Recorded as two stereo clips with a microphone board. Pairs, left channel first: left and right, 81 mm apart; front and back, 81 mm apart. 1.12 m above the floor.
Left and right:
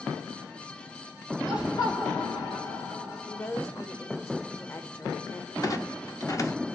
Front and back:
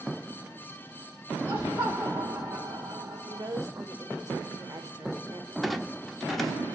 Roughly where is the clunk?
Left.